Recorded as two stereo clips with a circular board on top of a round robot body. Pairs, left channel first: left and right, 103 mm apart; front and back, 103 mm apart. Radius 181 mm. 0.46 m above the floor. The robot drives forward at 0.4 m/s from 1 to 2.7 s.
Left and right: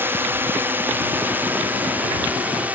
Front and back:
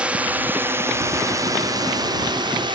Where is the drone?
120° right; by 2.8 s 160° right.